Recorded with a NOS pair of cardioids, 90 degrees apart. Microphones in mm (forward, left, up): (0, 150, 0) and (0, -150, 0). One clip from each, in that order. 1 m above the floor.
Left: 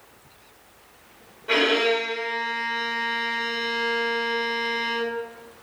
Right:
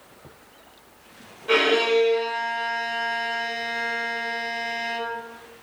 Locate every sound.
1.5 s a violin: 15° right, 2 m